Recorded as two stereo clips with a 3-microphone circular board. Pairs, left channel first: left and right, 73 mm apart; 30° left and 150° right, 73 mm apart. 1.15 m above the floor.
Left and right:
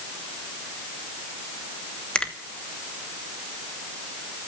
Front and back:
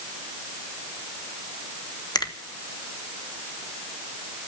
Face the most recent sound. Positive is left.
turn(degrees=15)